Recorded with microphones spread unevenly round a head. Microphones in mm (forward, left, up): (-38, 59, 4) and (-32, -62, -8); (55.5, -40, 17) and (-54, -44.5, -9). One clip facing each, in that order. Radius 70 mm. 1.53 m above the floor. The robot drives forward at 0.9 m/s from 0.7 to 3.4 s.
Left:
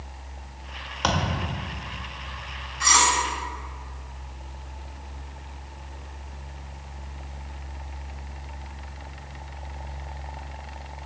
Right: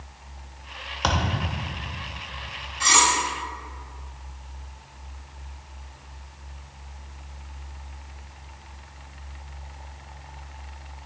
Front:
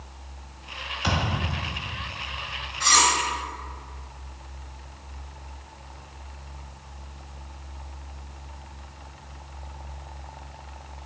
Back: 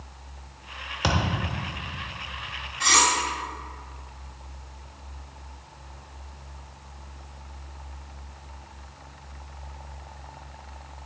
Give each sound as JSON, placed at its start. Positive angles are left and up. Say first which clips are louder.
{"t": 1.0, "sound": "a thud", "louder": "even, back 1 dB", "azimuth_deg": 175, "distance_m": 1.5}
{"t": 2.8, "sound": "cutlery clinking", "louder": "even, front 1 dB", "azimuth_deg": -150, "distance_m": 2.0}